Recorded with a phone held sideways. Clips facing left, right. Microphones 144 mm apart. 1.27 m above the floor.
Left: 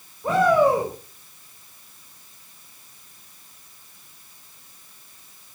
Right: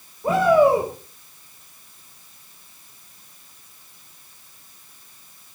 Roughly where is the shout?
Centre.